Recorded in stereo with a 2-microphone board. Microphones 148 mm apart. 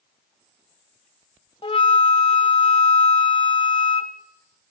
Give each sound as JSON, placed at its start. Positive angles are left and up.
{"t": 1.6, "sound": "a flute", "side_deg": 35, "distance_m": 1.3}